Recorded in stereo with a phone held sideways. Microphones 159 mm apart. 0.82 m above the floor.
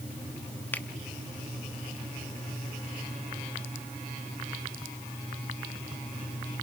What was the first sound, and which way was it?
A finger snap, 10° left (ahead or behind).